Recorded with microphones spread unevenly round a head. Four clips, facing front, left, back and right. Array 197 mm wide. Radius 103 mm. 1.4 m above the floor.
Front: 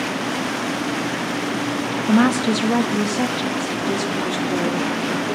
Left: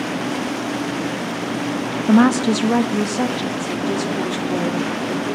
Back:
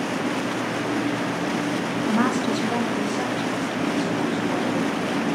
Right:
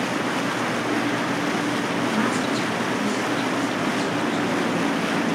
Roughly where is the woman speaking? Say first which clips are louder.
Left 13 dB, front 6 dB; ahead left.